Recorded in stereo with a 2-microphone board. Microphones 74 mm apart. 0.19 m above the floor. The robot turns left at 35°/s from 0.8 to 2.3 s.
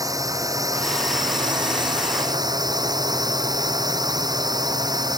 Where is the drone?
60° right; by 5.2 s 110° right.